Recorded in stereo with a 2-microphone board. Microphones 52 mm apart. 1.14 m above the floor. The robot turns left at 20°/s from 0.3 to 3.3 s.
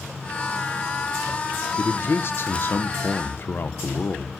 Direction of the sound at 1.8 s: 100° left.